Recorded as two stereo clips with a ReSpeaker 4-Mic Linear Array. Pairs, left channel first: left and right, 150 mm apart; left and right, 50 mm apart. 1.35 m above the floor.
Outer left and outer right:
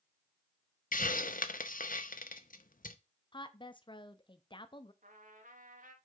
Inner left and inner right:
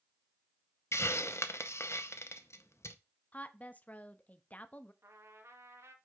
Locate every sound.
0.9 s a hiss: 65° left (ahead or behind), 0.6 m
3.3 s a woman speaking: 35° left (ahead or behind), 0.6 m
5.0 s a trumpet: 65° right (ahead or behind), 1.1 m